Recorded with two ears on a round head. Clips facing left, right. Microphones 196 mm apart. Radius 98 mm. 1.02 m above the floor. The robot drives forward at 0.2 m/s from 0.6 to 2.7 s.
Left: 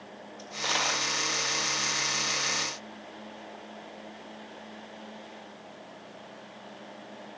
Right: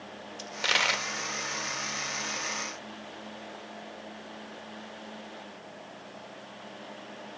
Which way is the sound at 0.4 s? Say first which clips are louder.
Even; 30° right (ahead or behind).